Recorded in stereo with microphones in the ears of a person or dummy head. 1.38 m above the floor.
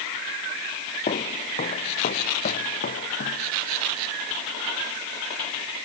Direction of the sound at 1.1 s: 45° left (ahead or behind).